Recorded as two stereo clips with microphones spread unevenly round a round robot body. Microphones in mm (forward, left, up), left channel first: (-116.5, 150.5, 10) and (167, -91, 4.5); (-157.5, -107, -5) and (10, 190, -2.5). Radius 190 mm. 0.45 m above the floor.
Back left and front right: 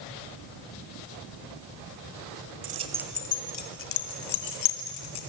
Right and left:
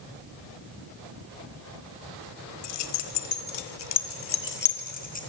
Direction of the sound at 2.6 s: 110° right.